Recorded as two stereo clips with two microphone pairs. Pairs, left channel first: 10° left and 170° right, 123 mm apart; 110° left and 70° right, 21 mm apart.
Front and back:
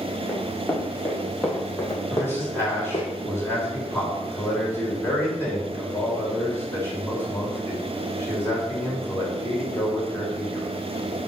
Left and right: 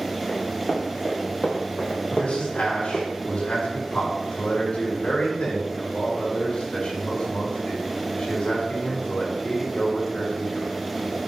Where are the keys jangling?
No keys jangling in this recording.